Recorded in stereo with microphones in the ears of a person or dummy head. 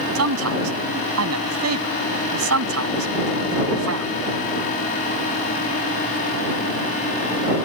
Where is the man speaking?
90° right.